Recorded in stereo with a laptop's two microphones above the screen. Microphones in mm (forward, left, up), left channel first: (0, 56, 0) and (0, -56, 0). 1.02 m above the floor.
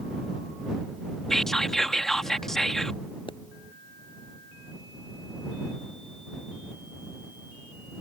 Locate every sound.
1.3 s whispering: 5° left (ahead or behind)
3.3 s a pop: 45° left (ahead or behind)